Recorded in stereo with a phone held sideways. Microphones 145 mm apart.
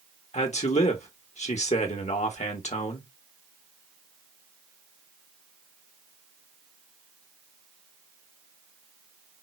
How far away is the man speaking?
About 1.3 m.